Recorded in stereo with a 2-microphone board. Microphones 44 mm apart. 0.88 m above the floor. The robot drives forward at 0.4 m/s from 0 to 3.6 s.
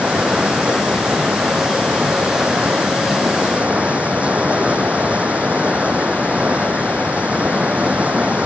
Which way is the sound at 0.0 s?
30° right (ahead or behind).